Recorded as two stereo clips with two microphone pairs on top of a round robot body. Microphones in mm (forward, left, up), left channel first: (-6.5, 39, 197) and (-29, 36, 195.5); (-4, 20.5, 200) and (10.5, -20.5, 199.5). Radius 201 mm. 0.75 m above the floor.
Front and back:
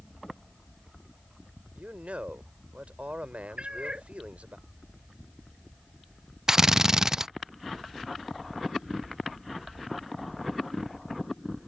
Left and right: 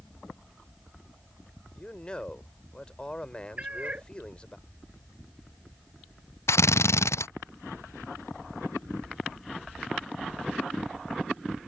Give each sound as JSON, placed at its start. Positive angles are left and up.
{"t": 1.8, "sound": "a man speaking", "azimuth_deg": 180}
{"t": 3.6, "sound": "a cat meowing", "azimuth_deg": -130}
{"t": 6.5, "sound": "a drill", "azimuth_deg": 120}